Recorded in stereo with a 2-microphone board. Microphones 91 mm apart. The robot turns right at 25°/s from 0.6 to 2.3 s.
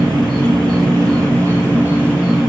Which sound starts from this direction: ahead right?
An insect, at 0.0 s.